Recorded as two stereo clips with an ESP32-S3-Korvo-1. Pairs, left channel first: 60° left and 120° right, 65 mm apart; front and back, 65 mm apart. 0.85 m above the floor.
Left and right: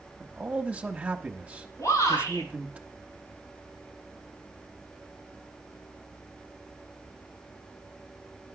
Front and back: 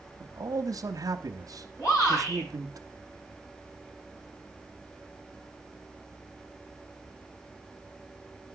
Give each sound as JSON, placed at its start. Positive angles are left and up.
{"t": 0.2, "sound": "a man speaking", "azimuth_deg": 175, "distance_m": 0.9}
{"t": 1.8, "sound": "a shout", "azimuth_deg": 35, "distance_m": 7.0}